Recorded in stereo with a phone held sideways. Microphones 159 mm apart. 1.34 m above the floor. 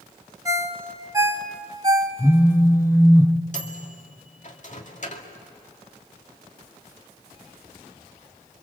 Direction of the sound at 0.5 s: 20° right (ahead or behind).